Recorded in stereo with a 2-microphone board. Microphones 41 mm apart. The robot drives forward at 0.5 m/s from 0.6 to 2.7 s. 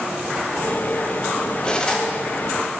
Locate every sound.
1.6 s cutlery clinking: 20° left (ahead or behind), 0.9 m